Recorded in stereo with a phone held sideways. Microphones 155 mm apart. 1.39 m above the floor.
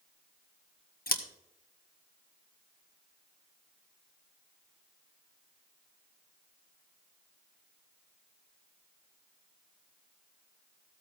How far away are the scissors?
About 1.3 m.